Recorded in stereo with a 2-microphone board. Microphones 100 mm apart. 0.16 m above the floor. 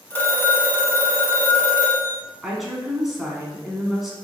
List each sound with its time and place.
0.1 s a phone ringing: 20° left (ahead or behind), 1.1 m
2.4 s a woman speaking: 5° right (ahead or behind), 1.0 m